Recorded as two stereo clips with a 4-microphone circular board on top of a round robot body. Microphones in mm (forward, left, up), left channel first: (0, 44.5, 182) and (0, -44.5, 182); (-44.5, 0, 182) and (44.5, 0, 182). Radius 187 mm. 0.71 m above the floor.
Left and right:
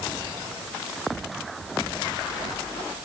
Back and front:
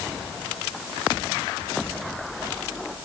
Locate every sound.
Only background noise.